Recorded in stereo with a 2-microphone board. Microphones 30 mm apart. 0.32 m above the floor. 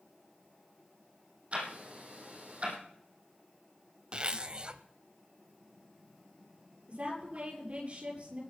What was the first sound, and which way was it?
Ticking, 40° right (ahead or behind).